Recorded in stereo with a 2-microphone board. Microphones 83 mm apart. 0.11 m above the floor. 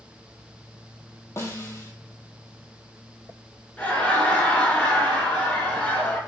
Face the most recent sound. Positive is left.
turn(degrees=15)  # may be behind; listen again after turning